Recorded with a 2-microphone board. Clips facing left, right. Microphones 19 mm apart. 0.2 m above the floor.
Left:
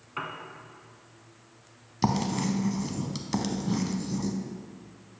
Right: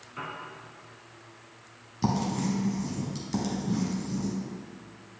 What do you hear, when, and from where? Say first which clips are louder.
0.2 s a piano: left 2 dB; 40° left (ahead or behind), 0.9 m
2.0 s writing: left 1 dB; 35° left (ahead or behind), 0.7 m